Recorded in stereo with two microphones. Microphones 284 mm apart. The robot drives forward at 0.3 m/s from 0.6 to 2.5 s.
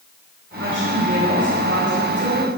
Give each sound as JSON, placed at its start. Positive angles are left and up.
{"t": 0.6, "sound": "a woman speaking", "side_deg": -45, "distance_m": 6.0}